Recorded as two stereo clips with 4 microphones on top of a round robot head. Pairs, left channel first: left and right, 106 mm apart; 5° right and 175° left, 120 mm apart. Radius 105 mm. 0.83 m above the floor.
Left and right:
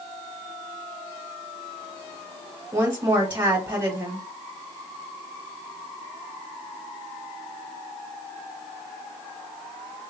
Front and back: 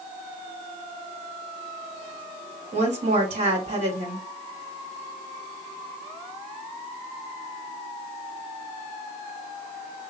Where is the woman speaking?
150° right, 2 m.